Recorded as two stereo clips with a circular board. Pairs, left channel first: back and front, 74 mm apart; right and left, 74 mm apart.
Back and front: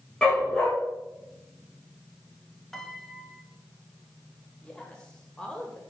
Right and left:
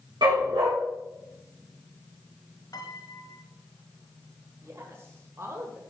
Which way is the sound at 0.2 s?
100° left.